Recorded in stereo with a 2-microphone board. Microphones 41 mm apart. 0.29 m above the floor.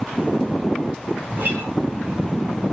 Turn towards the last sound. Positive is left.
turn(degrees=-50)  # may be behind; listen again after turning